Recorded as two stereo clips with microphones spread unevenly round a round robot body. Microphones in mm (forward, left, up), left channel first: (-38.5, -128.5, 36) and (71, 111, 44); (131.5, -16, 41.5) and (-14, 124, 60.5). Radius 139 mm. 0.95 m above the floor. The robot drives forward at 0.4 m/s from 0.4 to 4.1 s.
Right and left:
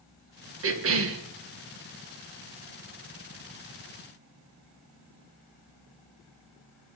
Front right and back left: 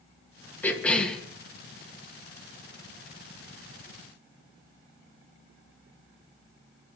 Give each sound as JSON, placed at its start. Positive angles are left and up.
{"t": 0.6, "sound": "a cough", "azimuth_deg": 35, "distance_m": 1.8}